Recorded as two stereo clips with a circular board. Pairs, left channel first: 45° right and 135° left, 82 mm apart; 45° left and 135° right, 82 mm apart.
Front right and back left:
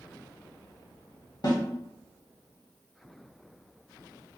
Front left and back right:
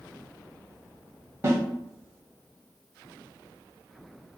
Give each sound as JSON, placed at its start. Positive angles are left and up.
{"t": 1.4, "sound": "a snare drum", "azimuth_deg": -80, "distance_m": 1.1}